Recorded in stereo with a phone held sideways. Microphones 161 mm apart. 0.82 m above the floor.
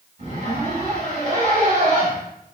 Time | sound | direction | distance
0.2 | a zipper | 45° right (ahead or behind) | 1.8 m